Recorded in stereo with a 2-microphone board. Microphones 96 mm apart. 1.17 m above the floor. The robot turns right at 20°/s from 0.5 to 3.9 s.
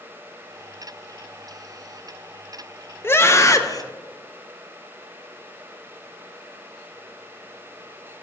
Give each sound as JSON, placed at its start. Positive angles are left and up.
{"t": 3.0, "sound": "a scream", "side_deg": 25, "distance_m": 0.7}